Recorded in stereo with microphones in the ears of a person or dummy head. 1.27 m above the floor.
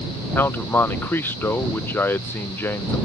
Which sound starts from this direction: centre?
A man speaking, at 0.3 s.